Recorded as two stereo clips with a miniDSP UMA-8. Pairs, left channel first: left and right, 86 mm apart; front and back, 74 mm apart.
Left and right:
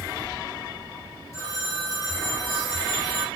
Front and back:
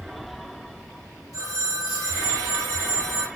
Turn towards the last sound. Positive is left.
turn(degrees=140)